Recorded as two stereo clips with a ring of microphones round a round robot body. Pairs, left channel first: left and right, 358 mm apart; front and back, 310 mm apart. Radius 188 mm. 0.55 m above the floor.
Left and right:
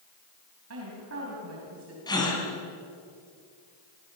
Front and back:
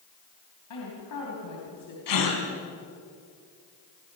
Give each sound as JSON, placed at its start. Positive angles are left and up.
{"t": 0.7, "sound": "a woman speaking", "azimuth_deg": -40, "distance_m": 4.5}
{"t": 2.1, "sound": "a gasp", "azimuth_deg": 10, "distance_m": 4.5}